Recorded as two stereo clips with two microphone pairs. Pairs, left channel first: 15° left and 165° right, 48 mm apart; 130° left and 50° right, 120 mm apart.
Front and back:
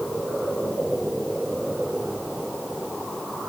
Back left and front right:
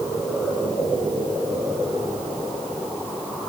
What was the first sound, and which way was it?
Only background noise.